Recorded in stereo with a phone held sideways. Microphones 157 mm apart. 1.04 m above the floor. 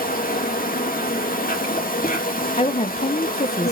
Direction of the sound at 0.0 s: 65° left (ahead or behind).